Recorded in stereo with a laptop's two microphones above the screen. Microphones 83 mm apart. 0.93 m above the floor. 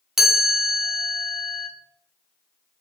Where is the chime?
5° right (ahead or behind), 0.6 m.